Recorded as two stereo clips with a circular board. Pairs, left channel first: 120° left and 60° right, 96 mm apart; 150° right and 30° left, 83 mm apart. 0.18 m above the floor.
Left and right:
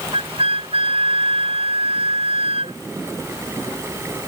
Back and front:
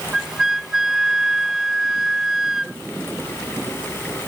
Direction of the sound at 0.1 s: 55° right.